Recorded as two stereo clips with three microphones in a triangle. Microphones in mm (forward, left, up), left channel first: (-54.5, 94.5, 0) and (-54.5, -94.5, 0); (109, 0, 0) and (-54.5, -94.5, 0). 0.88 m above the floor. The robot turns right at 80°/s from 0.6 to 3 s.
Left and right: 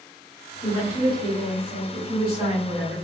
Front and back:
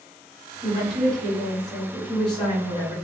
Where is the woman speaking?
175° left, 1.7 m; by 2.9 s straight ahead, 1.7 m.